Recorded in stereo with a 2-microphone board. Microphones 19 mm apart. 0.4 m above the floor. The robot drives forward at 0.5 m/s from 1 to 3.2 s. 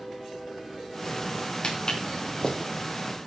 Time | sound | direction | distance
1.6 | footsteps | 50° left (ahead or behind) | 3.5 m